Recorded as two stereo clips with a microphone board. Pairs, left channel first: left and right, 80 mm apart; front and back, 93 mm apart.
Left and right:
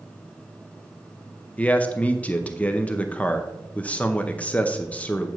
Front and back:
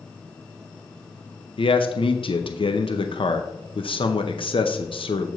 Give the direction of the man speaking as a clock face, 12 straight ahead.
11 o'clock.